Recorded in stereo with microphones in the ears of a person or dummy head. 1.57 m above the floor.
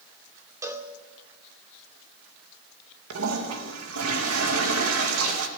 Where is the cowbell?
10° right (ahead or behind), 1.9 m.